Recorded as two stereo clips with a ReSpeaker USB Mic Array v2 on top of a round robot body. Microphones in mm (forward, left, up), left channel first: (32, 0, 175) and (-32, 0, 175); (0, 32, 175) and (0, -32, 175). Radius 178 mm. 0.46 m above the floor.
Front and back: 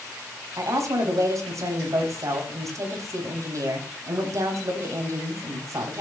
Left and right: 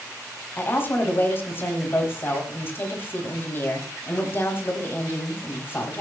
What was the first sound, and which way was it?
A woman speaking, 145° left.